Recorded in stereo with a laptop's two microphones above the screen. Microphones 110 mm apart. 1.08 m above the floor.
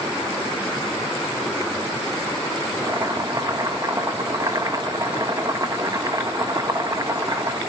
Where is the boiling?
35° right (ahead or behind), 1.4 m.